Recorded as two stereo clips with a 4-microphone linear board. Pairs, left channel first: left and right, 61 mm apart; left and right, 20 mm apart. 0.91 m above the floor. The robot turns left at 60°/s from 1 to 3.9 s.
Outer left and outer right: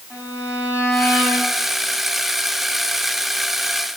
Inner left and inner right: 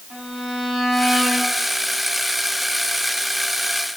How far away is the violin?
About 6 m.